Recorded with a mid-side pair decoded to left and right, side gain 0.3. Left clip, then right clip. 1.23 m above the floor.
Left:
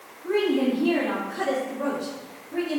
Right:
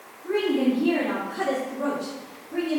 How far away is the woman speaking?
About 2.0 m.